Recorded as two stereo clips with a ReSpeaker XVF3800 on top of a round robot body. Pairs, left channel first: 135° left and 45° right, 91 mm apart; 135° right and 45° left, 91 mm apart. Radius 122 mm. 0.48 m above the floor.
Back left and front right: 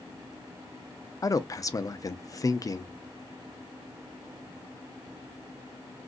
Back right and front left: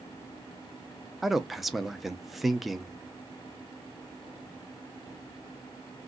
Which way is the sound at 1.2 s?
130° left.